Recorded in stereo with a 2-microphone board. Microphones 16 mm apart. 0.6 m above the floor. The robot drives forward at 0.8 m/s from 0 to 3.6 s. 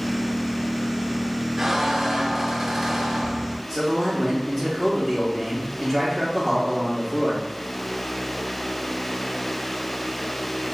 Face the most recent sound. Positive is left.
turn(degrees=10)  # may be behind; listen again after turning